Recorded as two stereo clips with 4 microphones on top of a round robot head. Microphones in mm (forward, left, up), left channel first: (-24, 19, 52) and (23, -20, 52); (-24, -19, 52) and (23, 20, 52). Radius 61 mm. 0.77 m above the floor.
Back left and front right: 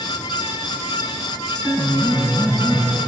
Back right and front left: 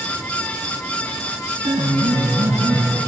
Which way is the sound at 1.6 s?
40° left.